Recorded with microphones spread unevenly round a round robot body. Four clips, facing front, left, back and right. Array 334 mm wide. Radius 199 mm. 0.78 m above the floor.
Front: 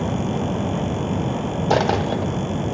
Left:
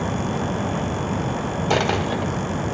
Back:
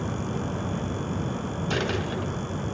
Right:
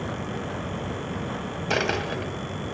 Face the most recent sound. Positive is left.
turn(degrees=15)